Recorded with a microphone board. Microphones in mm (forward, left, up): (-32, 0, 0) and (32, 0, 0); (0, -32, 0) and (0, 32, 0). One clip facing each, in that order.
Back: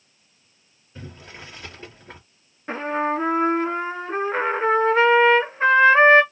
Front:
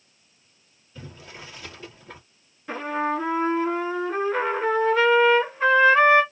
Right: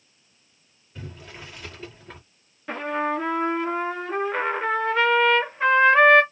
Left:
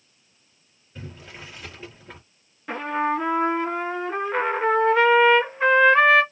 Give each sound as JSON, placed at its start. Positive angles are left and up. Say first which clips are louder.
{"t": 0.9, "sound": "boiling", "louder": "back 1 dB, even", "azimuth_deg": 170, "distance_m": 1.6}
{"t": 2.7, "sound": "a trumpet", "louder": "back 2 dB, left 1 dB", "azimuth_deg": 175, "distance_m": 0.9}